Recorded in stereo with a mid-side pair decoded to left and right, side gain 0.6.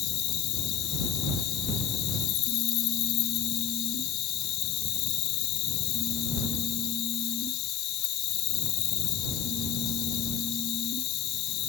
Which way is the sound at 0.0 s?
65° left.